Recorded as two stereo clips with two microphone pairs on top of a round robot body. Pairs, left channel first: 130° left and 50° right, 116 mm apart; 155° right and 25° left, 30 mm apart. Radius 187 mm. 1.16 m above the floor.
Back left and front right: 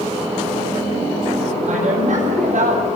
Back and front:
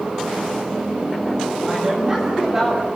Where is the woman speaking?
40° right, 7.5 m; by 2.9 s 50° right, 6.5 m.